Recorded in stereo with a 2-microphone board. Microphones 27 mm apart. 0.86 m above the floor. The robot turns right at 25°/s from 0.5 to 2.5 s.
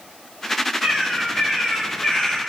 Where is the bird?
25° right, 1.6 m; by 2.4 s 15° left, 1.6 m.